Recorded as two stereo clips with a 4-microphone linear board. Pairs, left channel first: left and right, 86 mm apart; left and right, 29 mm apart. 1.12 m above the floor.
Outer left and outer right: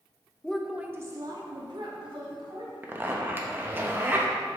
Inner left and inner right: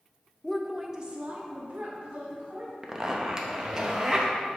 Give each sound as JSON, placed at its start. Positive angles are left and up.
{"t": 0.4, "sound": "a woman speaking", "side_deg": 10, "distance_m": 0.8}
{"t": 2.8, "sound": "a zipper", "side_deg": -25, "distance_m": 0.8}